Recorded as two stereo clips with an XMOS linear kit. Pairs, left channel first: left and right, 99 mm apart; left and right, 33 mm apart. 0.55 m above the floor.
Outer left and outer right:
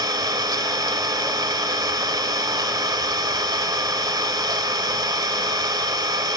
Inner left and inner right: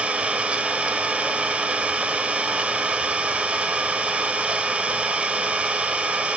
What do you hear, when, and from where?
0.0 s an engine running: 40° right (ahead or behind), 0.9 m